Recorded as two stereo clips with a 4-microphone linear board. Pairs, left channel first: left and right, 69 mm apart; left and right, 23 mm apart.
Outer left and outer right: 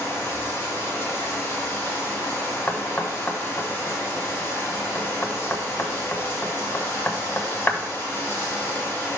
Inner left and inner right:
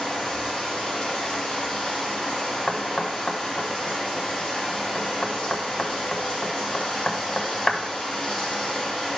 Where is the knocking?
25° left (ahead or behind), 1.0 m.